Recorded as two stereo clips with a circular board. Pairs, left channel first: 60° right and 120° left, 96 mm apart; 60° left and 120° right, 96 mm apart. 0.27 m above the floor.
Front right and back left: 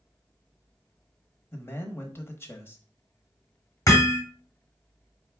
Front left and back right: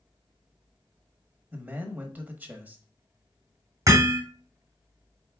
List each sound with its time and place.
1.5 s a man speaking: 75° right, 1.0 m
3.9 s hammering: 90° right, 1.6 m